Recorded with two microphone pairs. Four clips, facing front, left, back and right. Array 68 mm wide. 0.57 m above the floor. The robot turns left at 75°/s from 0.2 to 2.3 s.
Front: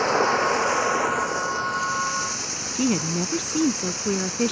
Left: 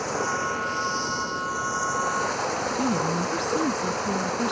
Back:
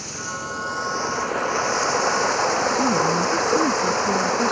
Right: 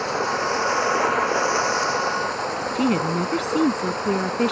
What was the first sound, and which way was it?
Running water, 15° right.